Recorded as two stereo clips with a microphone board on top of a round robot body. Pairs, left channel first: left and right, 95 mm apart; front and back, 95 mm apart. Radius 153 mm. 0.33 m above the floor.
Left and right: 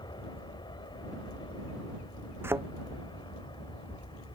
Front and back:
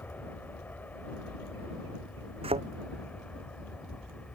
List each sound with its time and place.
0.0 s an aircraft: 70° left; by 4.4 s 75° left
2.4 s a thud: 155° right